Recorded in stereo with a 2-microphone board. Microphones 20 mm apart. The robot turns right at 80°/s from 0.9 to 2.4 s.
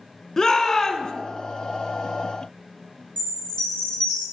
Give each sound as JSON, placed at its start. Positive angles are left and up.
{"t": 0.4, "sound": "a shout", "side_deg": 20, "distance_m": 1.2}
{"t": 3.2, "sound": "a chime", "side_deg": 75, "distance_m": 4.5}